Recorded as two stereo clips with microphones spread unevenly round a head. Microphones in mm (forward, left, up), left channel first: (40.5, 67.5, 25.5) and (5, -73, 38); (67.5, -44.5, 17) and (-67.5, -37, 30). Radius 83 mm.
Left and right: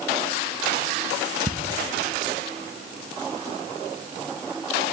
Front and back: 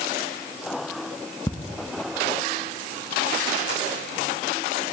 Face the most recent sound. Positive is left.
turn(degrees=65)